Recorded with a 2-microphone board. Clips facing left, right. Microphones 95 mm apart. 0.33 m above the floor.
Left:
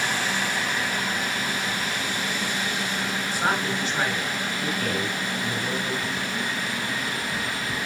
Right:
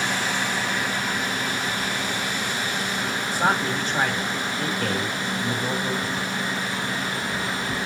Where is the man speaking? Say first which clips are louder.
Right 3 dB; 45° right (ahead or behind), 2.5 m.